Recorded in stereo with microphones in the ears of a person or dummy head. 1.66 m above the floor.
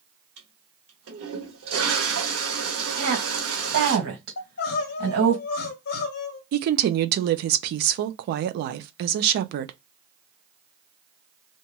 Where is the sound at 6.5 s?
60° right (ahead or behind), 0.5 m.